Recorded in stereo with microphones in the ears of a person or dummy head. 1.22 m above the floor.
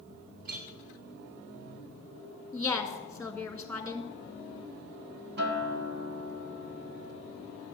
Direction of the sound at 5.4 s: 50° right (ahead or behind).